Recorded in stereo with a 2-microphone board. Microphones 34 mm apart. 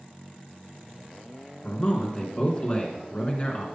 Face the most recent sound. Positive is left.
turn(degrees=35)  # may be behind; listen again after turning